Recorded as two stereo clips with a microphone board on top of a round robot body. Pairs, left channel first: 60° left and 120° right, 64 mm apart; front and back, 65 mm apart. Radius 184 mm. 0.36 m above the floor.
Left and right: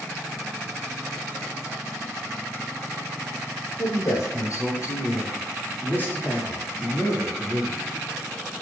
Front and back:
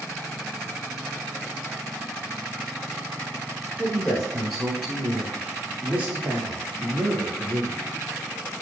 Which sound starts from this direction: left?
A man speaking, at 3.8 s.